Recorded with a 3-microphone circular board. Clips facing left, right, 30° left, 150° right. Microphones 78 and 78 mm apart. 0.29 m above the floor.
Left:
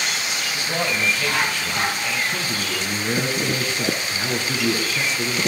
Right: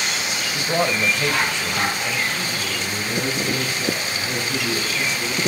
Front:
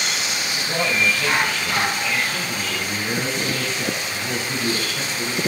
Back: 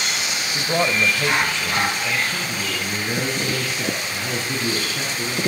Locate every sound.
0.5 s a man speaking: 130° right, 1.5 m
2.3 s a man speaking: 135° left, 4.5 m